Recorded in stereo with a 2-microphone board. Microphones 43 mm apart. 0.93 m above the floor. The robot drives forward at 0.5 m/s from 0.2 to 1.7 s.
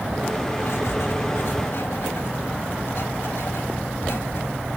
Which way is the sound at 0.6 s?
70° left (ahead or behind).